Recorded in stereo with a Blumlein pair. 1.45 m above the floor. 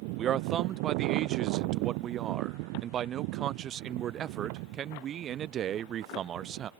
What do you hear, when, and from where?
0.2 s a man speaking: 30° right